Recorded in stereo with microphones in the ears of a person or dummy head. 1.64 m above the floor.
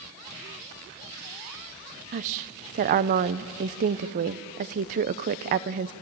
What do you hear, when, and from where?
2.1 s a woman speaking: 35° right (ahead or behind), 0.5 m